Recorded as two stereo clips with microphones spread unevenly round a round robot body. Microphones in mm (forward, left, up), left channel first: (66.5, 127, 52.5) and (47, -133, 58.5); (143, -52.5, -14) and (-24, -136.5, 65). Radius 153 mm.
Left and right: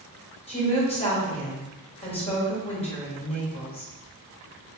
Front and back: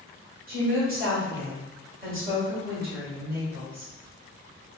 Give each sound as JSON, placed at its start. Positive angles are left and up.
{"t": 0.5, "sound": "a woman speaking", "azimuth_deg": 145, "distance_m": 1.6}